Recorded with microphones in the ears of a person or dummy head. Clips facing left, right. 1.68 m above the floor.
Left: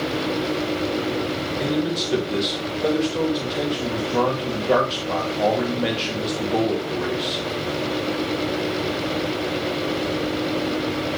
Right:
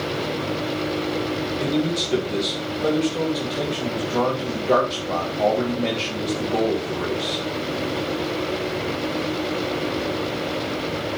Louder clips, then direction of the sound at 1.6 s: Even; 10° left (ahead or behind).